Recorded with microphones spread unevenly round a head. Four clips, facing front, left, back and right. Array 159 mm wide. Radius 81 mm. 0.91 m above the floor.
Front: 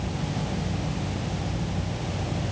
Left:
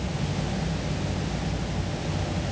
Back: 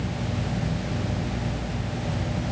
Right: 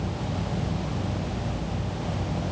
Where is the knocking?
No knocking in this recording.